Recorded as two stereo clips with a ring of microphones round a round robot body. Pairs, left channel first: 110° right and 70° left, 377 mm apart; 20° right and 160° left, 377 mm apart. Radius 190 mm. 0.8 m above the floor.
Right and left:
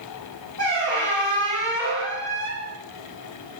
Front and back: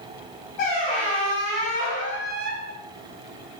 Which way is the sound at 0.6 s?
30° right.